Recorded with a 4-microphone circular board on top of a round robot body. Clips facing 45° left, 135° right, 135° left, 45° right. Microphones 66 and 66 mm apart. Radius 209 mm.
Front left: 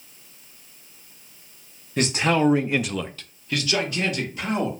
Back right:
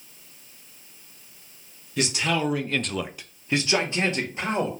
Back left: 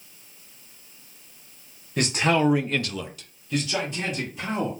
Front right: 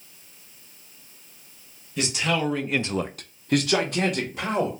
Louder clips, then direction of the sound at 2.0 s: Front left 4 dB, back left 4 dB; 95° left.